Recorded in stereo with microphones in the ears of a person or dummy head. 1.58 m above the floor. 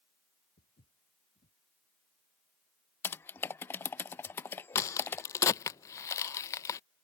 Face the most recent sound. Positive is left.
turn(degrees=20)  # may be behind; listen again after turning